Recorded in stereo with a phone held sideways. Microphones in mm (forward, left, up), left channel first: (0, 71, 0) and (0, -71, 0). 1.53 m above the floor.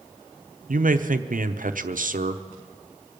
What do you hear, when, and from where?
0.7 s a man speaking: 70° right (ahead or behind), 0.8 m